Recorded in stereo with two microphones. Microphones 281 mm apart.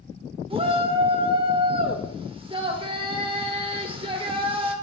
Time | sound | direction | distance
0.5 | a shout | 20° right (ahead or behind) | 0.9 m